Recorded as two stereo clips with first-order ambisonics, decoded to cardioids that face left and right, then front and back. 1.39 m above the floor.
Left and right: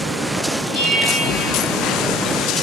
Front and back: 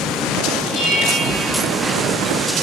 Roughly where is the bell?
Ahead left.